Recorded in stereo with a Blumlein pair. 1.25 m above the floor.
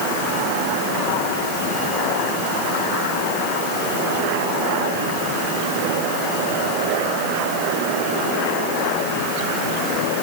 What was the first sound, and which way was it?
Only background noise.